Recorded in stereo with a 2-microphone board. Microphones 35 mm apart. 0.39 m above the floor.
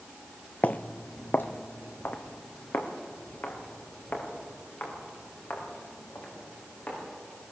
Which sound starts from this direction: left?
Footsteps, at 0.6 s.